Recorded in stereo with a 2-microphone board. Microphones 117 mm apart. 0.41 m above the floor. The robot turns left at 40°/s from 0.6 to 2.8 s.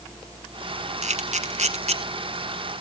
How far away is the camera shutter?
About 1.2 m.